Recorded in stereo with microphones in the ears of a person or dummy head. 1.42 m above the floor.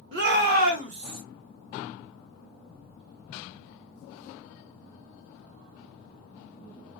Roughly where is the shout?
Right.